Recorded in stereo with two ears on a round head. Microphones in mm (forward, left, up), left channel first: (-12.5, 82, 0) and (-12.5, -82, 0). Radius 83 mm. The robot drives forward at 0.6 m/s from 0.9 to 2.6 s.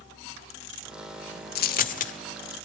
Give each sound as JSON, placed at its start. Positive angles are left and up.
{"t": 1.6, "sound": "a dropped coin", "side_deg": 60, "distance_m": 0.9}